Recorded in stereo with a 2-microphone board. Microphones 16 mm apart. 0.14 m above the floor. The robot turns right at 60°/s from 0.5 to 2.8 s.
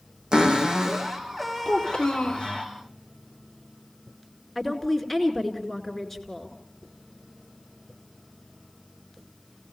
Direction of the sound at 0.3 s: 60° right.